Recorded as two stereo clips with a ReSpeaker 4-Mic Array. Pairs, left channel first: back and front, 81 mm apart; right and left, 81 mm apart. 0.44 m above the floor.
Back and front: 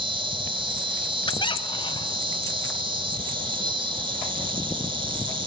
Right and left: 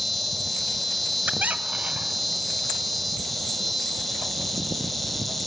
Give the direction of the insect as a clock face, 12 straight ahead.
12 o'clock.